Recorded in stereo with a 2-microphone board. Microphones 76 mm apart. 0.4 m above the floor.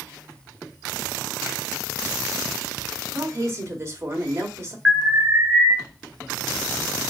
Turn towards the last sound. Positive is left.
turn(degrees=-25)  # may be behind; listen again after turning